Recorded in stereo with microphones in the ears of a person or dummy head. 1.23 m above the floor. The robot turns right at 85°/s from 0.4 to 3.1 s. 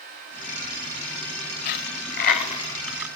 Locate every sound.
1.6 s a dropped coin: 55° left (ahead or behind), 2 m; by 3.1 s 5° right (ahead or behind), 2 m